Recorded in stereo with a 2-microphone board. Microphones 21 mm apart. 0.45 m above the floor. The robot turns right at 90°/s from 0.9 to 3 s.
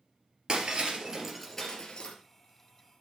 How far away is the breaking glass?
About 2.5 m.